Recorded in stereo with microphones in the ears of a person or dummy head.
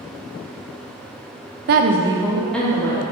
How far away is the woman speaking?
About 0.6 m.